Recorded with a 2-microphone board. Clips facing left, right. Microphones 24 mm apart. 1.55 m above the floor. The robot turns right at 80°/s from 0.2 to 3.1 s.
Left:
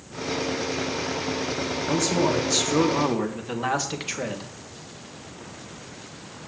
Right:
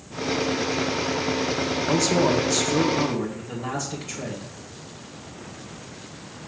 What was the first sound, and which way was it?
A man speaking, 40° right.